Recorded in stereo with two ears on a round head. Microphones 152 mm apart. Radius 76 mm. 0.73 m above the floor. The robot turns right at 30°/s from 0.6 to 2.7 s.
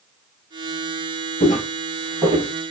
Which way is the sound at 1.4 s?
30° left (ahead or behind).